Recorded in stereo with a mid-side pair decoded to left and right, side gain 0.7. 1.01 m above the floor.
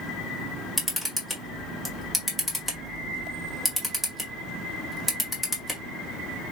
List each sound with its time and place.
0.8 s a camera shutter: straight ahead, 1.9 m